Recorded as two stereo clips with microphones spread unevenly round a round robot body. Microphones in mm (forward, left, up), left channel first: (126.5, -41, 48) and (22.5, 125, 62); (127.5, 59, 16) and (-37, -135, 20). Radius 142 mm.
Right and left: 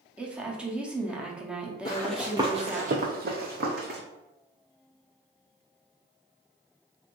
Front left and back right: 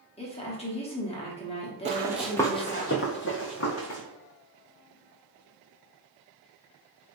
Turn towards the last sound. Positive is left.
turn(degrees=90)